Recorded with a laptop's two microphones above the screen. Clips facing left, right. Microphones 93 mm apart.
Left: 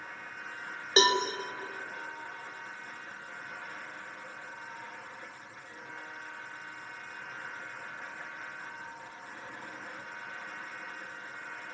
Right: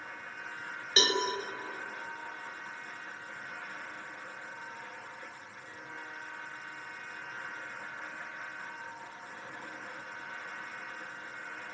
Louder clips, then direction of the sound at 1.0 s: Left 5 dB; 30° left (ahead or behind).